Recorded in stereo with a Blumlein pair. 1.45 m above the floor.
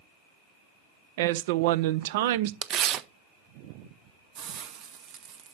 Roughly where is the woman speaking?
Ahead right.